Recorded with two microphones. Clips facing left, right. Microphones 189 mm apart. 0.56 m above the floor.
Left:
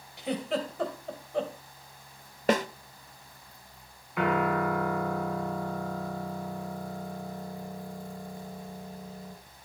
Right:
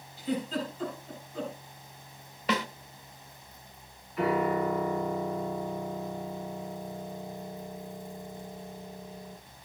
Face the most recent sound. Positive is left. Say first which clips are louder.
# even
turn(degrees=75)  # may be behind; listen again after turning